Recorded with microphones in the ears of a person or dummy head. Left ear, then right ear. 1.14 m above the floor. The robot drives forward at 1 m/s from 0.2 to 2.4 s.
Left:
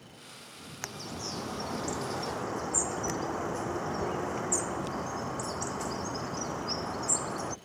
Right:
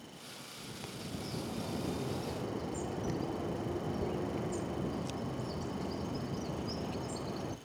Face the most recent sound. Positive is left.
turn(degrees=55)  # may be behind; listen again after turning